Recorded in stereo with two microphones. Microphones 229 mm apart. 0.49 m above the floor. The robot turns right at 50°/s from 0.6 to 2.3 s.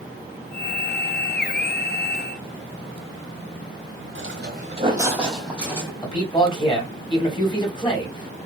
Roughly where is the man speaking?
Left.